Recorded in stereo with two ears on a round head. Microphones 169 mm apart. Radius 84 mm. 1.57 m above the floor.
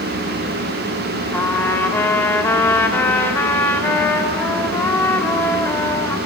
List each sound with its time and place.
1.3 s a trumpet: 10° left (ahead or behind), 2.5 m